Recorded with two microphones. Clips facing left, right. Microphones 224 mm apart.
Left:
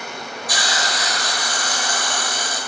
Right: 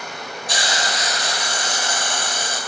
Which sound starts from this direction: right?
A hiss, at 0.5 s.